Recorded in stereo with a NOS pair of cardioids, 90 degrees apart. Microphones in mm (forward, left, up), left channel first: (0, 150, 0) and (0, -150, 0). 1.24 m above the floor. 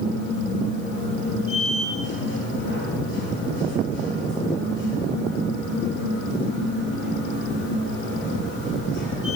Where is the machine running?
40° left, 5.5 m.